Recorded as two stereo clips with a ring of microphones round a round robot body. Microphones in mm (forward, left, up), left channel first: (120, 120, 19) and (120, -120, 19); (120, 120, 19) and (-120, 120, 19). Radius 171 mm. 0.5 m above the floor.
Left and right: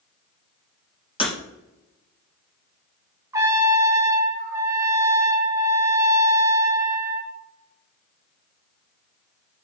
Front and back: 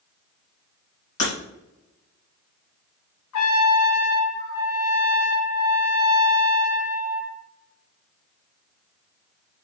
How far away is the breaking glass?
About 3.5 m.